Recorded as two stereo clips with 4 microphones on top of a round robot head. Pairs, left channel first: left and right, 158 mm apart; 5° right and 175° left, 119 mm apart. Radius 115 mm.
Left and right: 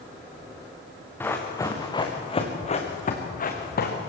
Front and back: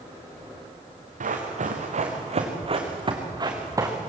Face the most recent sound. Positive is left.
turn(degrees=110)